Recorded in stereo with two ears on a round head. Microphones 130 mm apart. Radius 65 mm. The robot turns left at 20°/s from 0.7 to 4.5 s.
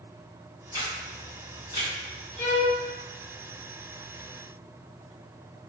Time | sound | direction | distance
0.7 | a camera shutter | 25° left (ahead or behind) | 1.6 m
2.4 | a violin | 10° left (ahead or behind) | 1.1 m